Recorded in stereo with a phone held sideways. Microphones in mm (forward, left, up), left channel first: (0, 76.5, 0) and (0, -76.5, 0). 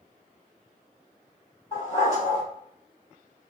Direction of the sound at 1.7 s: 45° left (ahead or behind).